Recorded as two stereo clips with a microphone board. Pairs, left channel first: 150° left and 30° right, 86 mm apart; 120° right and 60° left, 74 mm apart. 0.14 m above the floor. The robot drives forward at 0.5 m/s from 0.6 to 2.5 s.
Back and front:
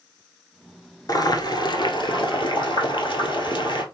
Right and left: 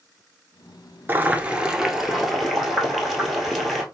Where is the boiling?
120° left, 0.7 m; by 3.8 s 155° left, 1.2 m.